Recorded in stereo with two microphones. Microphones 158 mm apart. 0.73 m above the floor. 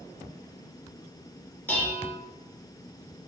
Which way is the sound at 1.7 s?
10° left (ahead or behind).